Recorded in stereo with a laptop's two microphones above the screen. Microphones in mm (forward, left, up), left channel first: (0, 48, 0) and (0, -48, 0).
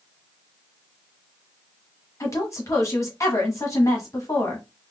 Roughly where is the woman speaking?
Left.